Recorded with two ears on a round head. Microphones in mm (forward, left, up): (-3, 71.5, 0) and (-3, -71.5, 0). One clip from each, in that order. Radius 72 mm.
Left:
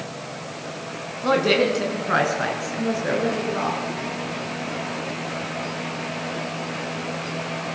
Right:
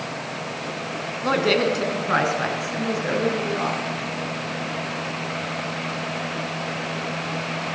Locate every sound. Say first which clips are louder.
1.2 s a woman speaking: left 1 dB; 10° right (ahead or behind), 4.5 m; by 3.8 s centre (ahead or behind), 7 m